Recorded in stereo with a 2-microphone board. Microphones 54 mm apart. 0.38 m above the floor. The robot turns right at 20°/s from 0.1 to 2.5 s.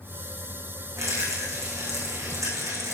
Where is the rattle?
115° right, 6 m; by 2.9 s 85° right, 6 m.